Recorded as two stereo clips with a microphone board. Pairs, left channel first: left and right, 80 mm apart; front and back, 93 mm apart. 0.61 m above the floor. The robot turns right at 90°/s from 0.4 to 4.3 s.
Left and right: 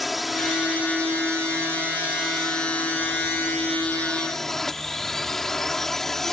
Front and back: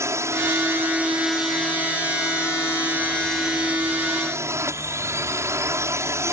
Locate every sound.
0.0 s a drone: straight behind; by 6.3 s 170° left